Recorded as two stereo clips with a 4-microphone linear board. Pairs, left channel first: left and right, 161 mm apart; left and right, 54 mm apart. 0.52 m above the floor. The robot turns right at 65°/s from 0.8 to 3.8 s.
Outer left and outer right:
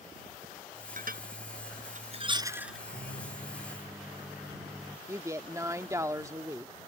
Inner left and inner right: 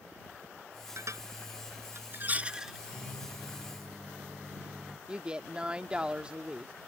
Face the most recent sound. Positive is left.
turn(degrees=-20)  # may be behind; listen again after turning